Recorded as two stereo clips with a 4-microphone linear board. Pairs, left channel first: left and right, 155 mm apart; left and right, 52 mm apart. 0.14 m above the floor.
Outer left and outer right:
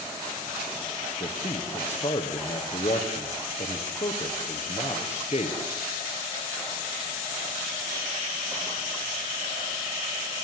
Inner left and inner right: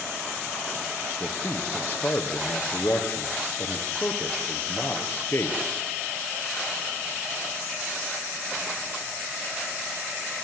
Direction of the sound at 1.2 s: 45° left (ahead or behind).